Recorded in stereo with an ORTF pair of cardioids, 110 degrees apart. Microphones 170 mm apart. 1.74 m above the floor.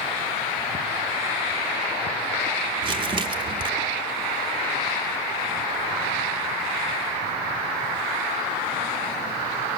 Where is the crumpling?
30° right, 0.8 m.